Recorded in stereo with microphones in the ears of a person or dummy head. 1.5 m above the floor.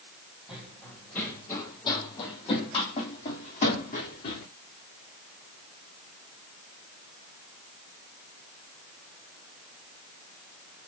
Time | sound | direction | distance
0.5 | running footsteps | 5° right (ahead or behind) | 2.5 m